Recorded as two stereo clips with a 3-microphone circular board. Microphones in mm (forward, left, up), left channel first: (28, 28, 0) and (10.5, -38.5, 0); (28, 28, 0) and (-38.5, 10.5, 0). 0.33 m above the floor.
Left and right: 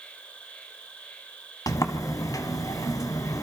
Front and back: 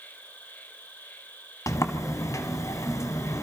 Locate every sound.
0.0 s an insect: 30° left, 2 m
1.7 s a sliding door: 50° left, 1.6 m